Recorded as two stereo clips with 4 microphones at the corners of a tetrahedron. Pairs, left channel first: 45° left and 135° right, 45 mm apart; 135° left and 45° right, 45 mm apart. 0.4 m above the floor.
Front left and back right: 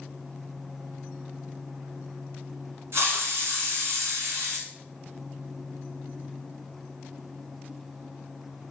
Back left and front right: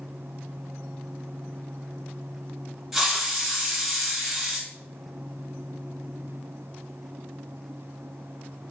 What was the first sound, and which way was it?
A hiss, 130° right.